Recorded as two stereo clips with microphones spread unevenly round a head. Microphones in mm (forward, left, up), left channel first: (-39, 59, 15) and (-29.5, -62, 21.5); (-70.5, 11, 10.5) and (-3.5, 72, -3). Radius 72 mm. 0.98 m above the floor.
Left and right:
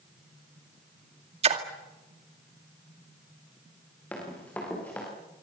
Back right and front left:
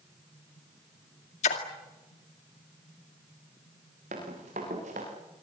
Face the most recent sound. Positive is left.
turn(degrees=15)